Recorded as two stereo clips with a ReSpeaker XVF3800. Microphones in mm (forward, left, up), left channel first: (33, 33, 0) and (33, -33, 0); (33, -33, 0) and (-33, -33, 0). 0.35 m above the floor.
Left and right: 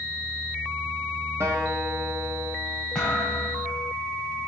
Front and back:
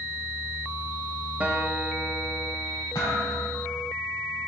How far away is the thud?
About 4.5 m.